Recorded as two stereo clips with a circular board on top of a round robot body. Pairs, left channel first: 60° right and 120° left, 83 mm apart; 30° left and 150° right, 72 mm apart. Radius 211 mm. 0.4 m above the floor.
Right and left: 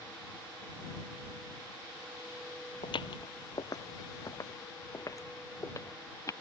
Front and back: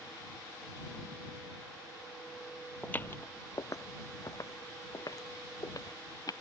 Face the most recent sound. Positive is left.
turn(degrees=-5)